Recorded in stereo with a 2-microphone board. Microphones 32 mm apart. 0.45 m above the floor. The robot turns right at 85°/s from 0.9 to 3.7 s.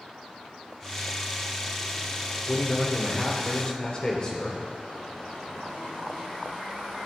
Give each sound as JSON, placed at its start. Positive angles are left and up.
{"t": 2.5, "sound": "a man speaking", "azimuth_deg": 25, "distance_m": 1.3}